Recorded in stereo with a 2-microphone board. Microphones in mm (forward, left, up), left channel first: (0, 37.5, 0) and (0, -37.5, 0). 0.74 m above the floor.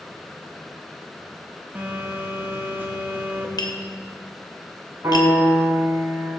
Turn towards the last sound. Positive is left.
turn(degrees=-45)  # may be behind; listen again after turning